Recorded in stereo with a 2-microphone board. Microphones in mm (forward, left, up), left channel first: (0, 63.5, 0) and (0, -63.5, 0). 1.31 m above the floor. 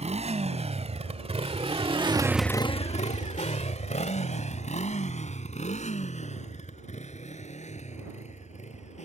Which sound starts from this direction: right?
A motorcycle, at 0.0 s.